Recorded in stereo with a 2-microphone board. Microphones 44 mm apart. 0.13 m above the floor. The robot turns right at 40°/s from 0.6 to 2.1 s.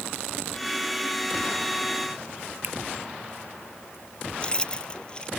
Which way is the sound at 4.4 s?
20° left (ahead or behind).